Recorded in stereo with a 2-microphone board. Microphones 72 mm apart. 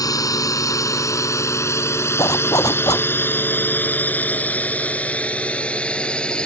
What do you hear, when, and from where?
0.0 s a drone: 55° left (ahead or behind); by 6.5 s 15° left (ahead or behind)
2.2 s a zipper: 55° left (ahead or behind)